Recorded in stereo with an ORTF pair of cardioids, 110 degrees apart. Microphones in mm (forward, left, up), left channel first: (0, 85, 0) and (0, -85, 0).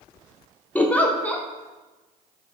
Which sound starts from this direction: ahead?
A giggle, at 0.8 s.